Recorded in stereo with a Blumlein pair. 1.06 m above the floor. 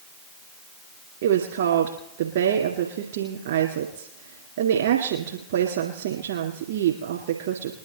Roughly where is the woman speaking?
Ahead right.